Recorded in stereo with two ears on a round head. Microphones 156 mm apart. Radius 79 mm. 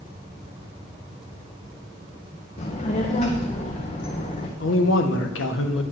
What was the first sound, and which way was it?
A child speaking, 40° left (ahead or behind).